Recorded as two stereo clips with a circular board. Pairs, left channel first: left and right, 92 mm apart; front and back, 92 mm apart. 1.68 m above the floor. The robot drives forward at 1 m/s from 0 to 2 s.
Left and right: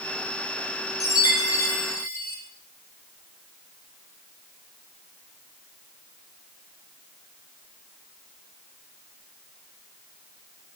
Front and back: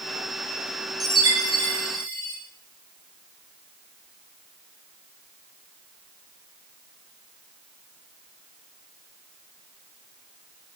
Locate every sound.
1.0 s a chime: 140° left, 3 m; by 2.4 s 150° left, 3.5 m